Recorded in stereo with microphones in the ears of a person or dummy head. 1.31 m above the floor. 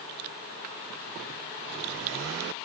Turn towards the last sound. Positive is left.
No sound to turn to.